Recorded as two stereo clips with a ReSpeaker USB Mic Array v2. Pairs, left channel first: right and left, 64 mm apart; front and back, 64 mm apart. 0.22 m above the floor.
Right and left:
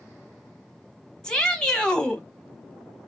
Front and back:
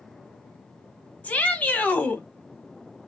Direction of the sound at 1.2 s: 30° right.